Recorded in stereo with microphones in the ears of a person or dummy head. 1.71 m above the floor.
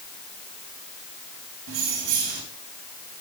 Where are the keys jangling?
75° right (ahead or behind), 4 m.